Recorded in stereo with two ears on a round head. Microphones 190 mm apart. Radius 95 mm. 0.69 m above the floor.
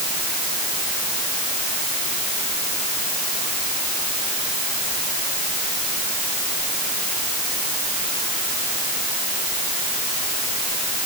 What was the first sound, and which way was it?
Only background noise.